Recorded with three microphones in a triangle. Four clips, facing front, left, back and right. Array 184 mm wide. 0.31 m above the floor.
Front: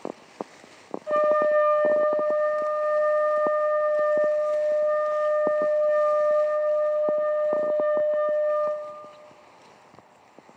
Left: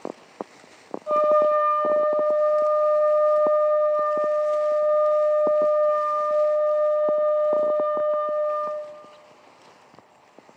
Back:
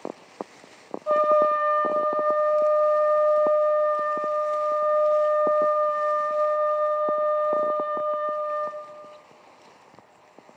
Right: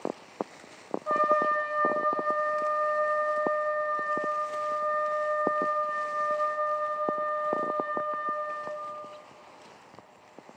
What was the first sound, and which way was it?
A trumpet, 140° right.